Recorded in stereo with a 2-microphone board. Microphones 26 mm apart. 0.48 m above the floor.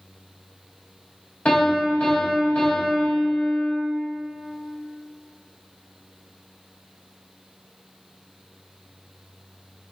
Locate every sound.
1.4 s a piano: 50° left (ahead or behind), 1.5 m